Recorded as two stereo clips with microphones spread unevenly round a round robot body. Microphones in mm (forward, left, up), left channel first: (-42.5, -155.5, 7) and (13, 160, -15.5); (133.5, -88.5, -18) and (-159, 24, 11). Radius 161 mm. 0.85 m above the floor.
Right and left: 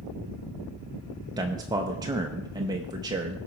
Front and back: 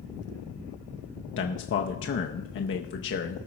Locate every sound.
1.4 s a man speaking: 10° left, 0.6 m